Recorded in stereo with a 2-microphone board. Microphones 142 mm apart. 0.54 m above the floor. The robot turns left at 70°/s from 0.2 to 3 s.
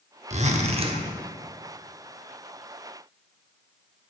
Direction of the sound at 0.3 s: 85° right.